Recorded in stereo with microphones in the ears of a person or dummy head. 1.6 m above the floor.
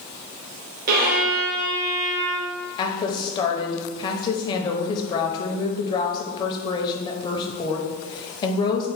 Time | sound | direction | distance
0.9 | a violin | 50° right (ahead or behind) | 1.1 m
2.8 | a woman speaking | 25° left (ahead or behind) | 0.7 m